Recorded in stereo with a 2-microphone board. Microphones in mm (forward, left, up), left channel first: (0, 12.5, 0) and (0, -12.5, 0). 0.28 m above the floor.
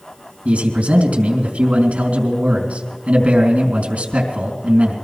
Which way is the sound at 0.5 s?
60° right (ahead or behind).